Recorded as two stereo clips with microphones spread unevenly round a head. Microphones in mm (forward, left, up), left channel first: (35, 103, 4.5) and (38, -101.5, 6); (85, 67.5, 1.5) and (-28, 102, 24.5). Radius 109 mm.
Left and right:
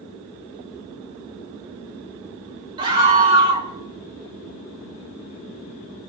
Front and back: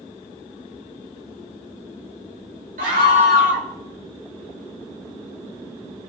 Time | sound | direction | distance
2.8 | a scream | 160° right | 3.5 m